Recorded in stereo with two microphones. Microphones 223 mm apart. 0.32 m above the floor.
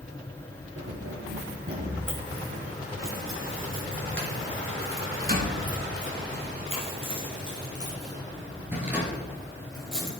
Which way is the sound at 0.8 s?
80° right.